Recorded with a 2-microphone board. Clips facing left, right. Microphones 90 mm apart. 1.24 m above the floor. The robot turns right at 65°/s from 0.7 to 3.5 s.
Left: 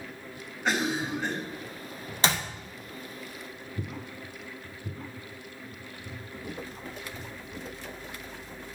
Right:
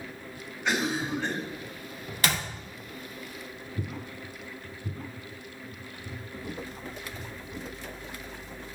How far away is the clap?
About 0.7 m.